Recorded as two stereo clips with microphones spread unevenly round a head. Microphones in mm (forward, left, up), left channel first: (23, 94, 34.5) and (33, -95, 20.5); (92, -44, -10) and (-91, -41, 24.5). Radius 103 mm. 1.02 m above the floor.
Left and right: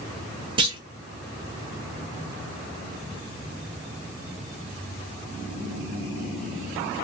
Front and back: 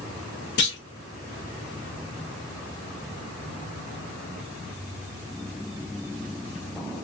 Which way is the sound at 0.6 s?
20° right.